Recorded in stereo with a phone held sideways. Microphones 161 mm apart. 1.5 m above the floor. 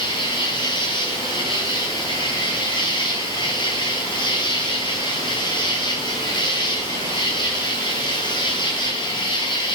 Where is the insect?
30° left (ahead or behind), 2.5 m.